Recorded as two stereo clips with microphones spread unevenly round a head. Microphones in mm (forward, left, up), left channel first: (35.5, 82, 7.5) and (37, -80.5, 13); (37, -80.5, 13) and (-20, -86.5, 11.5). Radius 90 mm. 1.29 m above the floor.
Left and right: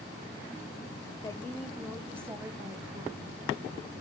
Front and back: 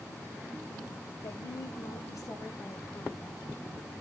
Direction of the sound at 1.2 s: 20° left.